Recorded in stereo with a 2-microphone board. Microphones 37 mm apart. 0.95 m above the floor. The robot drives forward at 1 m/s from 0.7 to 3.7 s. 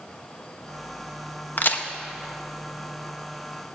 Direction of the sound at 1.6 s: 50° left (ahead or behind).